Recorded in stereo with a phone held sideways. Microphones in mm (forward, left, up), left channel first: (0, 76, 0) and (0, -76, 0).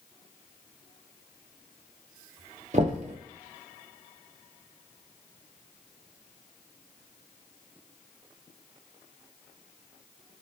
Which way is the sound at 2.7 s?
50° right (ahead or behind).